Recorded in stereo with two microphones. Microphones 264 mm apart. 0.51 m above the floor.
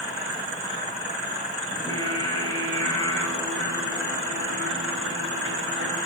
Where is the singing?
15° left (ahead or behind), 2.5 m.